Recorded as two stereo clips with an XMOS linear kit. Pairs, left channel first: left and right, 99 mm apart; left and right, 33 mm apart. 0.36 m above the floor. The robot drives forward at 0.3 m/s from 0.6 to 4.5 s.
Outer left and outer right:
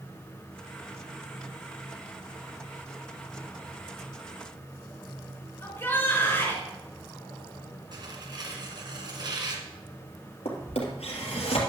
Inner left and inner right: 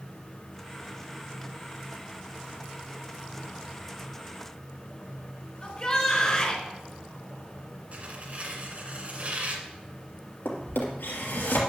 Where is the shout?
20° left (ahead or behind), 4 m.